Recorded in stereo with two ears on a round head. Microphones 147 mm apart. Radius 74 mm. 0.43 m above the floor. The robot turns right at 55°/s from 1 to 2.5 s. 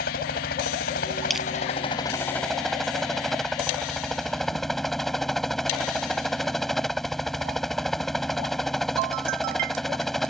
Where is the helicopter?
95° left; by 10.3 s straight behind.